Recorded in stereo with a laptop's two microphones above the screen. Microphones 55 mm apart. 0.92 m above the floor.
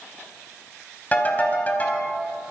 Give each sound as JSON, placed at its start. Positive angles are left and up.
{"t": 1.1, "sound": "a ringtone", "side_deg": 30, "distance_m": 3.5}